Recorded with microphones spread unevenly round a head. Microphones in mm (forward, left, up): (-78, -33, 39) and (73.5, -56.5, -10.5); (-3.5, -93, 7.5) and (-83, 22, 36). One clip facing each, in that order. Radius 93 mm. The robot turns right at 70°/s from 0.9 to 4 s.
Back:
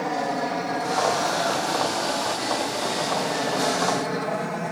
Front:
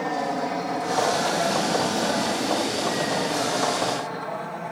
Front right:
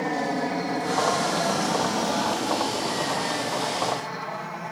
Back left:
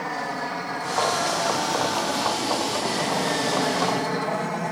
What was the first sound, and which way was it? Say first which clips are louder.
An aircraft: even, front right 4 dB; 100° right.